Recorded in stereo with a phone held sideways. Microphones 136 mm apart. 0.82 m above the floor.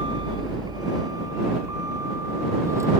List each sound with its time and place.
0.0 s a vehicle: 35° right (ahead or behind); by 3.0 s 20° right (ahead or behind)